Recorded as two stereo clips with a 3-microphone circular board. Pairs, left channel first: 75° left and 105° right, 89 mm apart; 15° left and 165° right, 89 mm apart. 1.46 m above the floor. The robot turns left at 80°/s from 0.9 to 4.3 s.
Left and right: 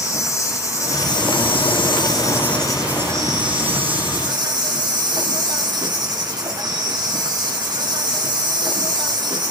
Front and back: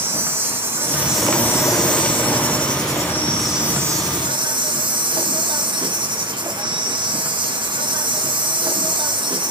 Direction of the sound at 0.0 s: 130° left.